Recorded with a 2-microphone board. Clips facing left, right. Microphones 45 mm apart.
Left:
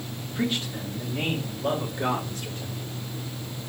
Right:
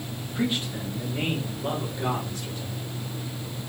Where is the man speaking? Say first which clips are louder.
Right 1 dB; 20° right (ahead or behind), 2 m; by 2.8 s 45° left (ahead or behind), 1.4 m.